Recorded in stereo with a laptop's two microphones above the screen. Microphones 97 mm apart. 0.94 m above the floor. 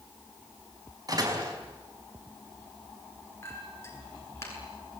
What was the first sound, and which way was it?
A door slam, 40° right (ahead or behind).